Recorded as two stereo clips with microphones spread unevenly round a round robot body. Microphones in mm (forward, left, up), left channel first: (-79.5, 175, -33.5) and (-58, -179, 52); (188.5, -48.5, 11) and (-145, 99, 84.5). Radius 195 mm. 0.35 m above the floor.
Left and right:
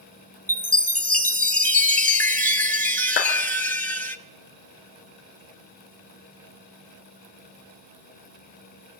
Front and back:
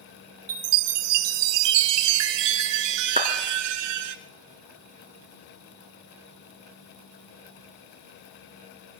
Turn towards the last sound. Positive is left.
turn(degrees=85)